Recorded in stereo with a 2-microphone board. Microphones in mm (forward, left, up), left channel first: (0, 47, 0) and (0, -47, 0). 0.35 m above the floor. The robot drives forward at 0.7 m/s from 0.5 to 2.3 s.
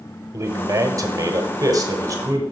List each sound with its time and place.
0.3 s a man speaking: 35° right (ahead or behind), 1.4 m